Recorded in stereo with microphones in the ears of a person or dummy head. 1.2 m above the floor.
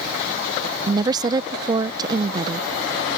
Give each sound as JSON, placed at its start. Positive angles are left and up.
{"t": 0.9, "sound": "a woman speaking", "side_deg": -25}